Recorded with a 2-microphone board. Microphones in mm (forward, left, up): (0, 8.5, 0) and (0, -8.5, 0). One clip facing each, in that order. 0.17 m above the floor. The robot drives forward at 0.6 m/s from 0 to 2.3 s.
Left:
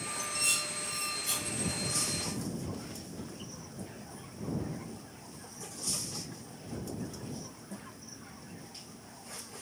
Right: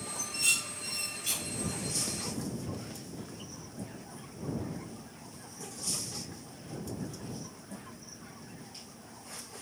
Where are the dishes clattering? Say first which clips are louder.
Right 2 dB; 70° right (ahead or behind), 2.5 m; by 1.6 s 65° right (ahead or behind), 2.5 m.